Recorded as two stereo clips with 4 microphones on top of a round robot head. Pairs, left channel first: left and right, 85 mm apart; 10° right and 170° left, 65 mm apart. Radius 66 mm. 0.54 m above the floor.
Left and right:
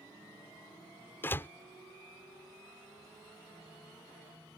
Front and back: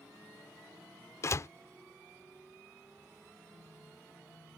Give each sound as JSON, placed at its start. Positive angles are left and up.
{"t": 1.2, "sound": "a door slam", "azimuth_deg": 25}